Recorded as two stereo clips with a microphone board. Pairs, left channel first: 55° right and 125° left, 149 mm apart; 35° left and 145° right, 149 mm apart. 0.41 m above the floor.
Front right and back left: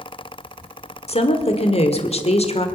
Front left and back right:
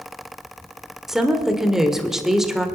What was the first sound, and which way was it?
A woman speaking, 60° right.